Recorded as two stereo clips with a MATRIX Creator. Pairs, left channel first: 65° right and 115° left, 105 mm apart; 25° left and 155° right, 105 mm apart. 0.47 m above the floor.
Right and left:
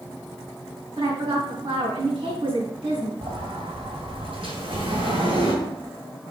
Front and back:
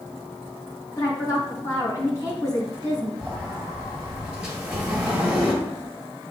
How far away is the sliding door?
About 2.5 m.